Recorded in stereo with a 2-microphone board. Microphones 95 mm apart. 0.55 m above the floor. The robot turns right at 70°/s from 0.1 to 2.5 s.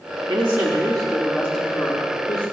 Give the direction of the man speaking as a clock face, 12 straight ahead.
2 o'clock.